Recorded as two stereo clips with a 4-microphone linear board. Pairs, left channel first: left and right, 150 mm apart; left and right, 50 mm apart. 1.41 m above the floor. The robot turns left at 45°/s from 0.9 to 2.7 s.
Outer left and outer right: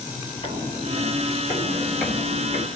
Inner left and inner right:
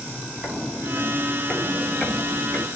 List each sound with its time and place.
0.4 s footsteps: 45° right (ahead or behind), 1.9 m; by 2.7 s 35° left (ahead or behind), 2 m